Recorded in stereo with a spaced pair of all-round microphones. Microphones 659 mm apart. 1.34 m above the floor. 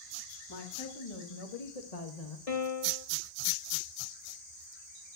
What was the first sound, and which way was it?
A woman speaking, 35° left (ahead or behind).